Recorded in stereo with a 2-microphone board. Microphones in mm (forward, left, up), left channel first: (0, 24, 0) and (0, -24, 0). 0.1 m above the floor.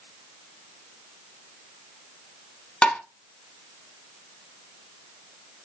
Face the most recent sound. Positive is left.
turn(degrees=15)  # may be behind; listen again after turning